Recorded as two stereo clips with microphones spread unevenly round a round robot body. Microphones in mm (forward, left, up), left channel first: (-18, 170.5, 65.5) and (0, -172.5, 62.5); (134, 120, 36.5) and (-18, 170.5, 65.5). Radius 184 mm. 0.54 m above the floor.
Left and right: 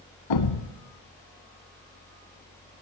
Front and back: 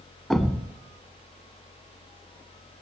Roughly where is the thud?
Left.